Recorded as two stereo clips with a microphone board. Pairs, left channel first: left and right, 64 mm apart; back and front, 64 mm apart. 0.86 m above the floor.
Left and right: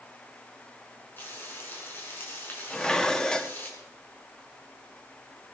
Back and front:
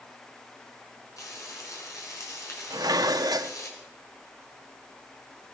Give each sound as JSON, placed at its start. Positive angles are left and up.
{"t": 1.2, "sound": "frying", "azimuth_deg": 150, "distance_m": 5.5}
{"t": 2.7, "sound": "dishes clattering", "azimuth_deg": 10, "distance_m": 0.7}